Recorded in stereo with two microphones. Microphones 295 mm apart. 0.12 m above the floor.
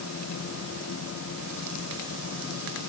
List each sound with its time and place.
Only background noise.